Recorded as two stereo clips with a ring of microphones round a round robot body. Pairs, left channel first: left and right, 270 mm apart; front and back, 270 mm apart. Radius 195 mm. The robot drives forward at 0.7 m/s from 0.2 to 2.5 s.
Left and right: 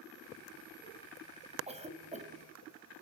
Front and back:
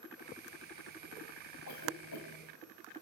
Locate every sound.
1.7 s a cough: 25° right, 4 m; by 3.0 s 30° right, 3.5 m